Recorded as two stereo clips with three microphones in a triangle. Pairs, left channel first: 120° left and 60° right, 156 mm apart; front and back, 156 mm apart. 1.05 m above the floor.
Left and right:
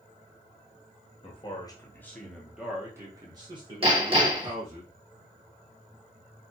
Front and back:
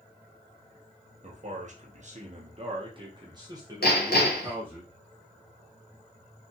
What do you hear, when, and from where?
1.2 s a man speaking: 160° left, 0.9 m; by 4.8 s 100° right, 1.7 m
3.8 s hammering: 5° right, 1.1 m